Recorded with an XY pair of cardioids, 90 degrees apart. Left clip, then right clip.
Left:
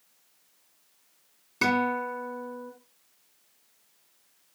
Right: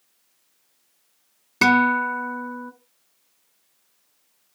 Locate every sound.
1.6 s a guitar: 70° right, 1.7 m